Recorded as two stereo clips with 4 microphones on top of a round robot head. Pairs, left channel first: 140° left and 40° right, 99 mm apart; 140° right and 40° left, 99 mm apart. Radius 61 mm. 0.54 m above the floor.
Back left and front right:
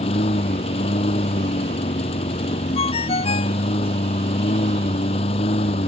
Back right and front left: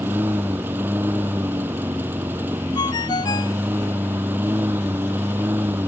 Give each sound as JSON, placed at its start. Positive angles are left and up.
{"t": 0.0, "sound": "a lawn mower", "azimuth_deg": 110}
{"t": 2.8, "sound": "a ringtone", "azimuth_deg": 170}